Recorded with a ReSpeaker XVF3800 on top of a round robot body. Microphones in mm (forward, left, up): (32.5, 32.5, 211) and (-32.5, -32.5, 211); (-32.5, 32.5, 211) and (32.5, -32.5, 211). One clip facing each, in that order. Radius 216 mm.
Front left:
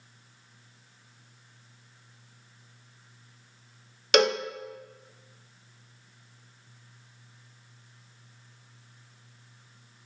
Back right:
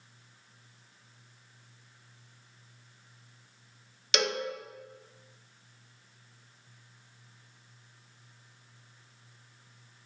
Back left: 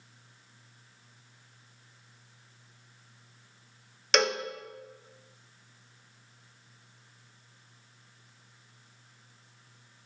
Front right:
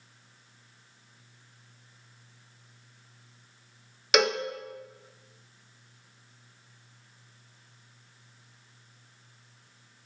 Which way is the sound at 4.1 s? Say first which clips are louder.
Front left 8 dB, front right 2 dB; 40° left.